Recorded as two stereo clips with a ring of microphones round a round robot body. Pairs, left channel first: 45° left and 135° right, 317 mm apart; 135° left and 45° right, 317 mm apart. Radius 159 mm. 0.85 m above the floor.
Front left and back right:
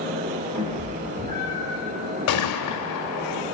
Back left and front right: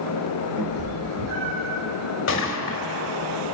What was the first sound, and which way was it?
A cat meowing, 70° right.